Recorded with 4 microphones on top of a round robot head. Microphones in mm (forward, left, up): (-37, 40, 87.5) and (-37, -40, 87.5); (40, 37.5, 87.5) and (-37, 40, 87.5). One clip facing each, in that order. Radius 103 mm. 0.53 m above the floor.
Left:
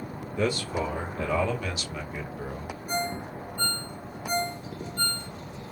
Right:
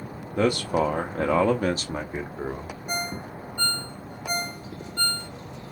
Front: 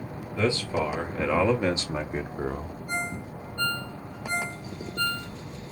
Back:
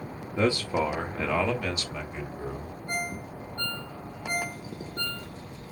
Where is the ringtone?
120° right, 1.9 m.